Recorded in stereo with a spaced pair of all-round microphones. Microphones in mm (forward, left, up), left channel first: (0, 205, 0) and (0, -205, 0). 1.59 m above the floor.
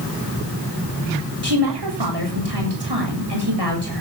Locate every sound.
1.4 s a woman speaking: 80° right, 7.5 m